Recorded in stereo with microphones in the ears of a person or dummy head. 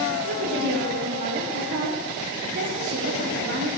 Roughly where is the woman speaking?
Right.